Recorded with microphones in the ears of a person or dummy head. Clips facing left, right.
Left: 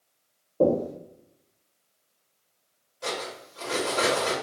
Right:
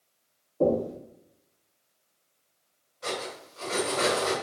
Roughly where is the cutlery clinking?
Left.